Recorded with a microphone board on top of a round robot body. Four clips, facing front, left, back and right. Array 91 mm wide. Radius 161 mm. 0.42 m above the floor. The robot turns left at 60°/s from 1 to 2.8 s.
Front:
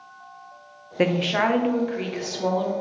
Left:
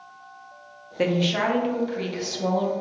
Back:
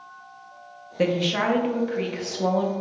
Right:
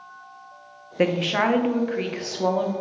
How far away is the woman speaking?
About 1.0 m.